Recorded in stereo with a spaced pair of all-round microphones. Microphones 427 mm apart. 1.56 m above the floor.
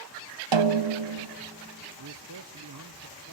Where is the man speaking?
50° right (ahead or behind), 0.6 m.